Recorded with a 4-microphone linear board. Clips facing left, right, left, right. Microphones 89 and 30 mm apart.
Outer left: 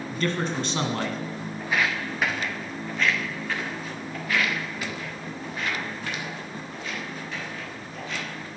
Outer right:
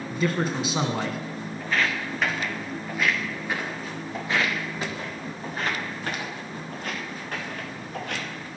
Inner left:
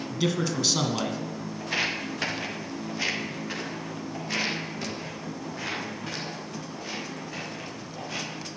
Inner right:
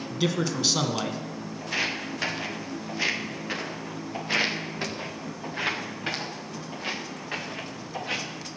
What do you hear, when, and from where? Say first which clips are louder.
0.1 s a man speaking: outer right 2 dB, even; 10° right (ahead or behind), 1.5 m
1.6 s footsteps: even, even; 15° left (ahead or behind), 3 m; by 8.4 s 55° right (ahead or behind), 5.5 m